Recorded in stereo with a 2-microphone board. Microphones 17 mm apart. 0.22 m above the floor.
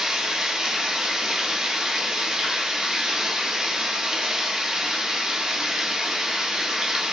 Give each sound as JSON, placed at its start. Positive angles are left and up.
{"t": 0.0, "sound": "running water", "side_deg": -50, "distance_m": 1.0}